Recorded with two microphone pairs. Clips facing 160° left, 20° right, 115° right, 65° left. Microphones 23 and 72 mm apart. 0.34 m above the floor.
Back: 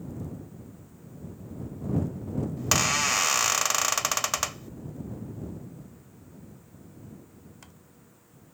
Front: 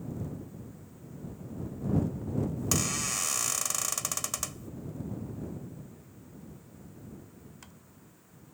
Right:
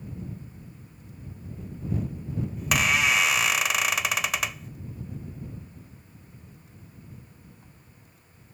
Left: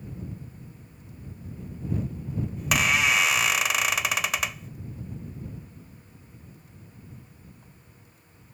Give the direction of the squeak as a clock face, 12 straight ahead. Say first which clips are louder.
Back 11 dB, even; 7 o'clock.